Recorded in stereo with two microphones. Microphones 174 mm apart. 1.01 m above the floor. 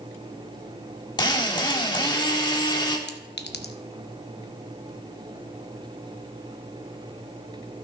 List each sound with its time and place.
1.2 s a drill: 25° left (ahead or behind), 1.4 m
3.1 s a clink: 75° left (ahead or behind), 0.7 m